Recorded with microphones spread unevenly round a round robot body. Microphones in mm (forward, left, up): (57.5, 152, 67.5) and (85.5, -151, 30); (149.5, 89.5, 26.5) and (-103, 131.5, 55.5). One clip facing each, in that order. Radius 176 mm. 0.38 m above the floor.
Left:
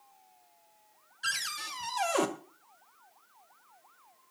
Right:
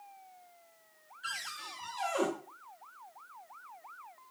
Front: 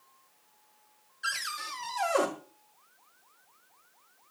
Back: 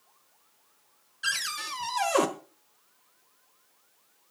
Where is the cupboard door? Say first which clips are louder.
Left 3 dB, back 2 dB; 125° left, 1.6 m.